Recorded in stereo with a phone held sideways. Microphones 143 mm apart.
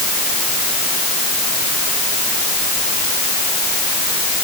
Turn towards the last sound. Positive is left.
No sound to turn to.